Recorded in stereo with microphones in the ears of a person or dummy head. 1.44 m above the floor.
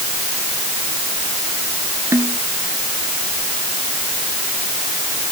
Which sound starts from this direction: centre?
A snare drum, at 2.1 s.